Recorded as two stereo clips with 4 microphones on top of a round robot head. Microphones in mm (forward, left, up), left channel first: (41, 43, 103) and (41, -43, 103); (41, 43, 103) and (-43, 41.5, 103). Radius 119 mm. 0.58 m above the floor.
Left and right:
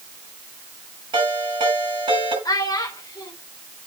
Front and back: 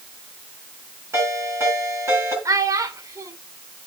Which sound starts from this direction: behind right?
A ringtone, at 1.1 s.